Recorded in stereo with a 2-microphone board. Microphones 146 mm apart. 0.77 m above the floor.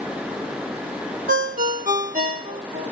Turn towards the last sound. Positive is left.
turn(degrees=-80)